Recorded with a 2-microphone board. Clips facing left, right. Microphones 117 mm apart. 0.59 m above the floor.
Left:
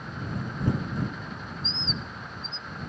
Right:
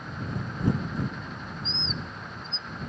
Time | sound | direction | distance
1.6 | a bird | 70° left (ahead or behind) | ?